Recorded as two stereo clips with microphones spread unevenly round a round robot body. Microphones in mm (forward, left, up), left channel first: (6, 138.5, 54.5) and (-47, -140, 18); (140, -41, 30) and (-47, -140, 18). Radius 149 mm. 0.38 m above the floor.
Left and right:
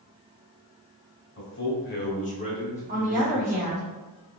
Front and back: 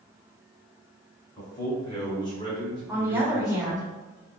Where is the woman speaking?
80° right, 1.4 m.